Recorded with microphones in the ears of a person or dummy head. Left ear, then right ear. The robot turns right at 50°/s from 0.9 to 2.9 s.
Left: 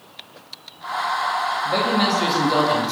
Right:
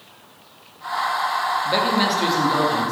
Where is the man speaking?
25° right, 1.5 m; by 2.9 s 40° left, 1.5 m.